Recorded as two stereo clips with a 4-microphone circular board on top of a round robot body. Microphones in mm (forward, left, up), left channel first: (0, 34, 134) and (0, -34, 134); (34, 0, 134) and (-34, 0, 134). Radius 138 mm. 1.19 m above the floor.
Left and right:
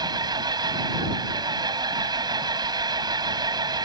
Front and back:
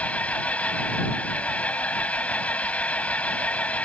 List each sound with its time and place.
0.0 s an engine running: 70° right